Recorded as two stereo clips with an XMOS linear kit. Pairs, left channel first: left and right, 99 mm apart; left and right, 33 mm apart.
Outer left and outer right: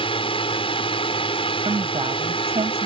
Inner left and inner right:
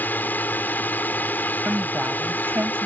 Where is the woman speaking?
80° right.